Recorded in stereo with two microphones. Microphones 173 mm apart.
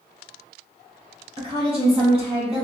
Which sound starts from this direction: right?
A woman speaking, at 1.4 s.